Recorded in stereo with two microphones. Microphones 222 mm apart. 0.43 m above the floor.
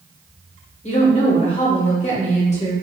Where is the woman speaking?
30° left (ahead or behind), 0.9 m.